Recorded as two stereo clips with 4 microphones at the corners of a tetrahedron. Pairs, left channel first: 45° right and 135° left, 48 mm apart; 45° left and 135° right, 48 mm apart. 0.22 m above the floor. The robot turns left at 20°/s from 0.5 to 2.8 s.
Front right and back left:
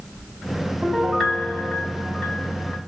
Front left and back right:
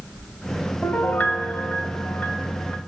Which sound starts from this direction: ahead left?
A piano, at 0.8 s.